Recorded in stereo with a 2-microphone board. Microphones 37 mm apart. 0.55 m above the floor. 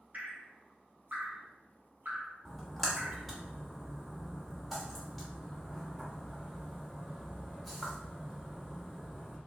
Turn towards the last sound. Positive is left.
turn(degrees=0)  # may be behind; listen again after turning